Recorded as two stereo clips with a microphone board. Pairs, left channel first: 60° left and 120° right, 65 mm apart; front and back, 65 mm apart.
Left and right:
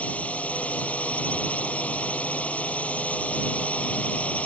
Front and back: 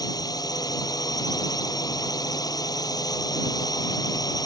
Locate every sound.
0.0 s a drone: 10° right